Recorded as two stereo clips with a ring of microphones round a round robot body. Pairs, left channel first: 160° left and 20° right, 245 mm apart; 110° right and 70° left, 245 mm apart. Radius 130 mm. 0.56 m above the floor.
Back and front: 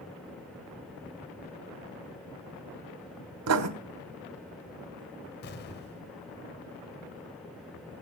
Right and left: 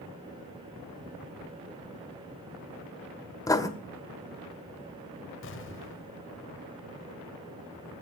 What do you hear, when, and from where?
3.5 s writing: 35° right, 1.8 m
5.4 s an explosion: 155° right, 1.7 m